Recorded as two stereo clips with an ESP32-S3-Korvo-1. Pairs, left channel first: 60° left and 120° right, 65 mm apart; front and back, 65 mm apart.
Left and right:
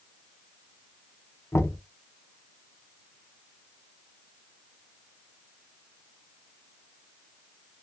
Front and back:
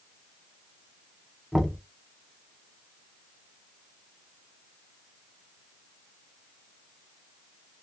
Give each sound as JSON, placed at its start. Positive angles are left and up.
{"t": 1.5, "sound": "knocking", "azimuth_deg": 95, "distance_m": 0.8}